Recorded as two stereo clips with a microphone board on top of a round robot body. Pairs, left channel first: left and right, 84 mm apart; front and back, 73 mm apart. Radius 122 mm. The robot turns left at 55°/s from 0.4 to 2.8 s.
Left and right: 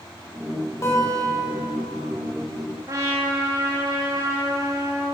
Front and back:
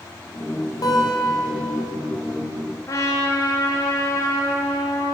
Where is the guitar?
35° left, 2.0 m; by 1.6 s 5° right, 2.0 m.